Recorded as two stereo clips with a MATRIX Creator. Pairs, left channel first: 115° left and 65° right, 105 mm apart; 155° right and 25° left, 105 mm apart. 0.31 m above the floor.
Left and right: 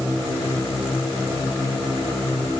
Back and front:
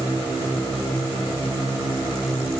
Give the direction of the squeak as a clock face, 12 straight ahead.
I don't hear a squeak.